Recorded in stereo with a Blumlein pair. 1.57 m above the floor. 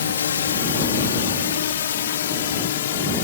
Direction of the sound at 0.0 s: 65° left.